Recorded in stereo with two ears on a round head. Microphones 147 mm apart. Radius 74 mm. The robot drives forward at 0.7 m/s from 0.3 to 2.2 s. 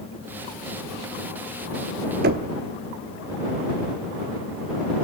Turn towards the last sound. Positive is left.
turn(degrees=-60)  # may be behind; listen again after turning